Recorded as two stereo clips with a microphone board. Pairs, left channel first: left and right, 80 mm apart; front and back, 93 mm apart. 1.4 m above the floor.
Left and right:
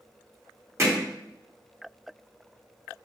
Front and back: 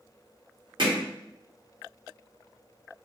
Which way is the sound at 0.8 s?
145° right.